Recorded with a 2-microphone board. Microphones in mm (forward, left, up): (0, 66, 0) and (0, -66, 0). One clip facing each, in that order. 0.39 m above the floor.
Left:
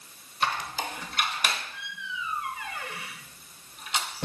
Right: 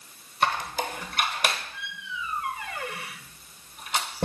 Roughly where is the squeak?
Right.